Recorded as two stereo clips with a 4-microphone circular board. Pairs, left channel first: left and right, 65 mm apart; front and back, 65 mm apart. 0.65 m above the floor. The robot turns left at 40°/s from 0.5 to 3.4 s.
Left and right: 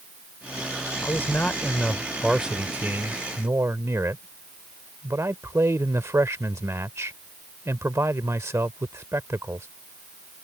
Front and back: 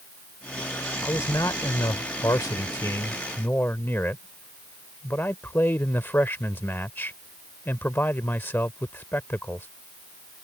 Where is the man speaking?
40° left; by 9.7 s 55° right.